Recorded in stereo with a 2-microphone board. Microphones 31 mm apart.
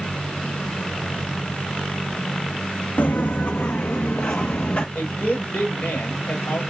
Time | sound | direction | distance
3.0 | footsteps | 75° left (ahead or behind) | 0.8 m
5.0 | a woman speaking | 80° left | 6 m